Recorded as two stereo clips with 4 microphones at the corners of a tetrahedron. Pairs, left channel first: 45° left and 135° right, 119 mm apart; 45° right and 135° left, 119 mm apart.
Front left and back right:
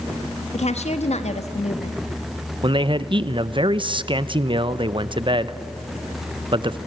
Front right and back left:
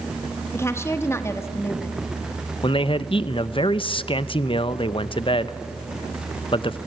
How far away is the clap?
I don't hear a clap.